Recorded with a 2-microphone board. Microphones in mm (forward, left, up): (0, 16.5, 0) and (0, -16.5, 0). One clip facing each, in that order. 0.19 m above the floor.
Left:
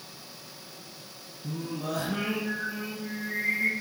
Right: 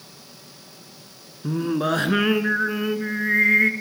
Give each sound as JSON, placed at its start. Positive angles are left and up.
{"t": 1.4, "sound": "singing", "side_deg": -65, "distance_m": 0.8}